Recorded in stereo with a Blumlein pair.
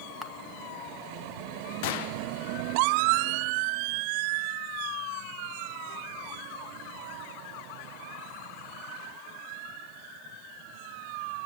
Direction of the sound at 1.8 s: 50° left.